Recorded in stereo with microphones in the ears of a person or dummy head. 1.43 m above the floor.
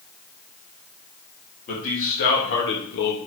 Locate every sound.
1.7 s a man speaking: 45° left (ahead or behind), 2.5 m; by 3.2 s 75° left (ahead or behind), 2 m